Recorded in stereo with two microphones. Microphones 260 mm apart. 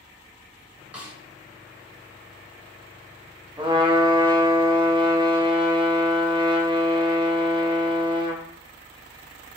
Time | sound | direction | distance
0.9 | a snare drum | 5° right (ahead or behind) | 0.7 m
3.6 | a trumpet | 20° right (ahead or behind) | 0.6 m